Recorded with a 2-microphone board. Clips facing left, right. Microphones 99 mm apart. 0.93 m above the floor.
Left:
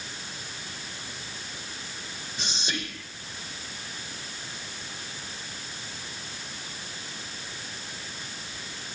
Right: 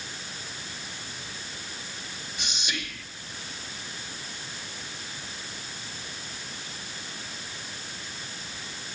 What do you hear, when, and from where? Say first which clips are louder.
2.4 s whispering: left 2 dB; 30° left (ahead or behind), 0.8 m